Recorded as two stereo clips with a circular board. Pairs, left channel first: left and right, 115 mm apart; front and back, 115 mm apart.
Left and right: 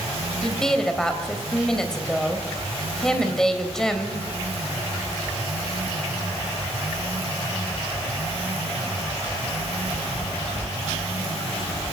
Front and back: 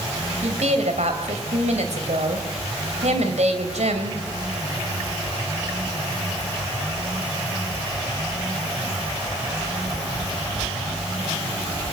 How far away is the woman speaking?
About 3 m.